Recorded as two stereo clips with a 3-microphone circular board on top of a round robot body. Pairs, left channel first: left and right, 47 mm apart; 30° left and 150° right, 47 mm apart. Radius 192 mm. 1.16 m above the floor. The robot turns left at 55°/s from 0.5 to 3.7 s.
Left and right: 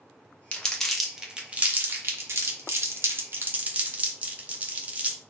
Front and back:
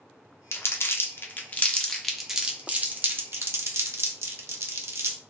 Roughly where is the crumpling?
Ahead left.